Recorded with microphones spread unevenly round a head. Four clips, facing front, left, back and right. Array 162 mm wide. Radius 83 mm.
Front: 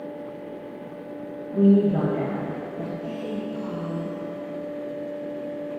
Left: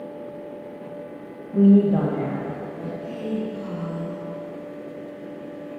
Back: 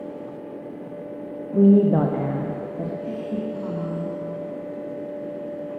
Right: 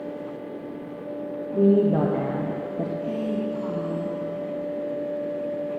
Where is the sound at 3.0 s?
140° right, 1.5 m.